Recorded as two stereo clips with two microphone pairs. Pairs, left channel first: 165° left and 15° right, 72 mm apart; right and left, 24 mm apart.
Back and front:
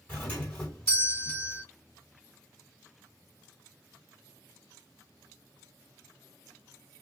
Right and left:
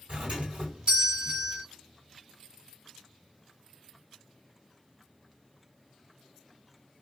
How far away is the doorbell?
About 2.5 m.